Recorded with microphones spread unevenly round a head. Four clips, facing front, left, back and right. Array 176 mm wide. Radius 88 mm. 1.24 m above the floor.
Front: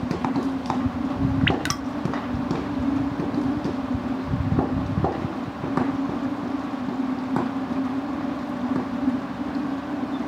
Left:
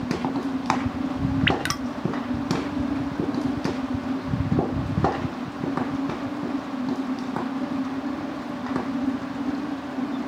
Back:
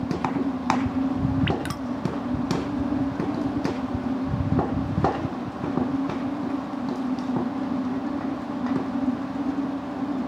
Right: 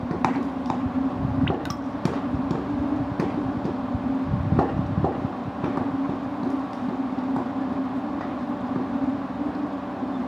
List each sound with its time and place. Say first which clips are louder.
1.5 s dripping: left 2 dB, front 2 dB; 65° left, 1.4 m